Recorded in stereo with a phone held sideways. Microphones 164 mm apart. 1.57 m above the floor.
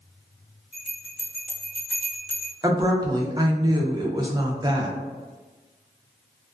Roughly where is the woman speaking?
Right.